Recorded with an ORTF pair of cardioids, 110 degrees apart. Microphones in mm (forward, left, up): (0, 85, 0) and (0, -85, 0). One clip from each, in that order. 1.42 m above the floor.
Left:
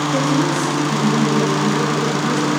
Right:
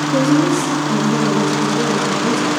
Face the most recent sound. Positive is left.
turn(degrees=-25)